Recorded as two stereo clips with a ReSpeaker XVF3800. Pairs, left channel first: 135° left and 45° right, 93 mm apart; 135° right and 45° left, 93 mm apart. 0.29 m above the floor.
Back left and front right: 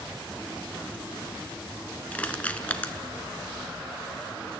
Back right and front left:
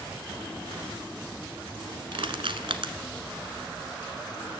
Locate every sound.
2.1 s crushing: 60° left, 1.0 m